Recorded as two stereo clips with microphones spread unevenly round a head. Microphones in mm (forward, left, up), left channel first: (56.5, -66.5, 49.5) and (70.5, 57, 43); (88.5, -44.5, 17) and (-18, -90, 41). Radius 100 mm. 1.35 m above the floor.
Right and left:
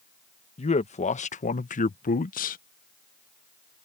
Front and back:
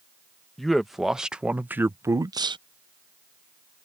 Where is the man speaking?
65° right; by 2.6 s 105° right.